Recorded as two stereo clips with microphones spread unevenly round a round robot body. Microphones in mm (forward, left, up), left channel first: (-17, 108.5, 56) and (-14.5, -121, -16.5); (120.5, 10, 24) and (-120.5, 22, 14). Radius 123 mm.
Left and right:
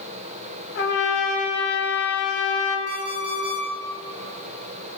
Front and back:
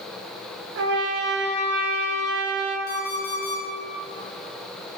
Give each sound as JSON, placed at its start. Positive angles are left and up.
{"t": 0.8, "sound": "a trumpet", "azimuth_deg": 135, "distance_m": 2.5}
{"t": 2.9, "sound": "an alarm clock", "azimuth_deg": -60, "distance_m": 4.5}